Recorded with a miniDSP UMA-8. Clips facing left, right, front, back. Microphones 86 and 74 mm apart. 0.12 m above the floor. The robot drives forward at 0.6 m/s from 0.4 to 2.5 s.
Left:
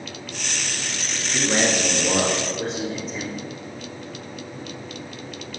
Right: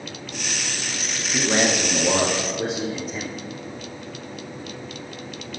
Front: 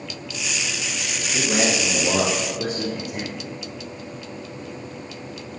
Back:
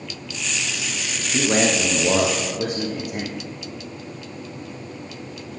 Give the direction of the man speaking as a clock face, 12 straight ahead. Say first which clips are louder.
Right 1 dB, back 3 dB; 5 o'clock.